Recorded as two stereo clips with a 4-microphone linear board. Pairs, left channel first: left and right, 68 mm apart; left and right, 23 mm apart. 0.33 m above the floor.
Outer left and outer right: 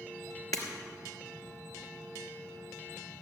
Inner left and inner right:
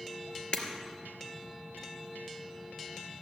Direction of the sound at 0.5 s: 60° left (ahead or behind).